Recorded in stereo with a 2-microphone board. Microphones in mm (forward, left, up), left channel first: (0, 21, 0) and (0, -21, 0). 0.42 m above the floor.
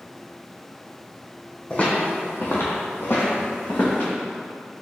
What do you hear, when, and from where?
1.7 s footsteps: 35° left (ahead or behind), 1.3 m; by 4.1 s 45° left (ahead or behind), 2.0 m